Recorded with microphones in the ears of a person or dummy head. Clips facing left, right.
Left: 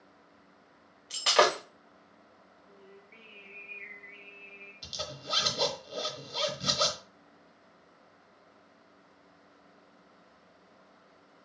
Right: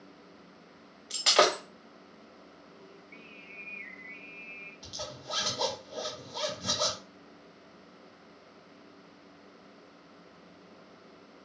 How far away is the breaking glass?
About 1.4 m.